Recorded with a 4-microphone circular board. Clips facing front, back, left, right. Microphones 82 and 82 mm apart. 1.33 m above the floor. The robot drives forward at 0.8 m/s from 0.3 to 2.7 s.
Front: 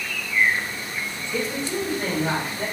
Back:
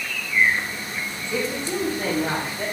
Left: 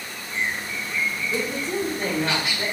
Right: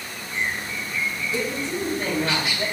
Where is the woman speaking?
135° left, 1.3 m; by 2.6 s 155° left, 2 m.